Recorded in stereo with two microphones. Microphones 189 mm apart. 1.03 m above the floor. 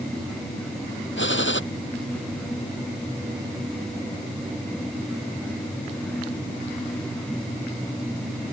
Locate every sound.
1.2 s a gunshot: 85° left